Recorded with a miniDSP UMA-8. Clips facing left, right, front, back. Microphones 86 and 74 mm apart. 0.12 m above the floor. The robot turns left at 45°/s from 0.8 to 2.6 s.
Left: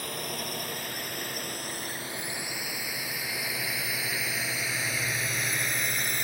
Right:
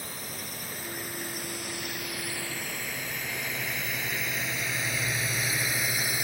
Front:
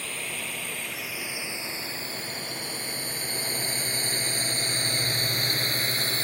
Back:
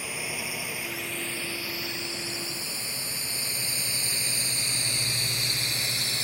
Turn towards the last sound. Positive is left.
turn(degrees=-5)